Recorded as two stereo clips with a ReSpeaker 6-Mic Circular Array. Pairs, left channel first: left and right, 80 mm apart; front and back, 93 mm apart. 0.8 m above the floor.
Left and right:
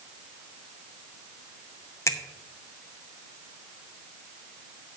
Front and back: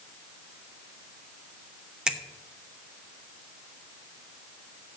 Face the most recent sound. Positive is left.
turn(degrees=105)